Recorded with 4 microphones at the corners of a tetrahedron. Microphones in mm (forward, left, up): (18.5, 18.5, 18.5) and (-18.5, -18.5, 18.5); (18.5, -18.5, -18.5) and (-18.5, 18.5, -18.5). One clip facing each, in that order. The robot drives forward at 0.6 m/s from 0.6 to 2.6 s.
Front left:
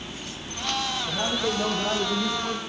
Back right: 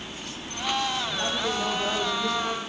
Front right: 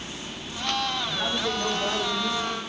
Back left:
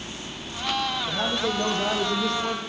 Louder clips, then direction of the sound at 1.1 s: Front left 1 dB, back left 2 dB; 105° left.